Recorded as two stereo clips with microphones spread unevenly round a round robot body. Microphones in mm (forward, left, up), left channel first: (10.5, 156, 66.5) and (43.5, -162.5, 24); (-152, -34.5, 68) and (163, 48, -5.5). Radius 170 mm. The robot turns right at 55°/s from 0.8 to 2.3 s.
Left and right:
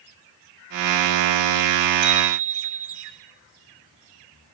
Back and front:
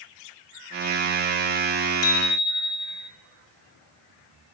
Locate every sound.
2.0 s a bicycle bell: 115° right, 4 m; by 3.1 s 100° right, 4 m